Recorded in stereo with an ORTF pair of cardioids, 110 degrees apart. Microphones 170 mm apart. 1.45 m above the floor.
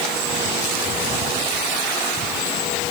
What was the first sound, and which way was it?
Only background noise.